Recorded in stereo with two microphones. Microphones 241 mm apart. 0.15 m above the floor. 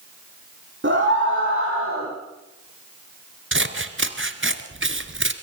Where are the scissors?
50° right (ahead or behind), 1.4 m.